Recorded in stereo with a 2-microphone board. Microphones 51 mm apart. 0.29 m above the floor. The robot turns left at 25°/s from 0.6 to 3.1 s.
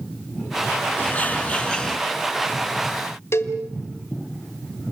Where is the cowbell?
55° left (ahead or behind), 1.9 m.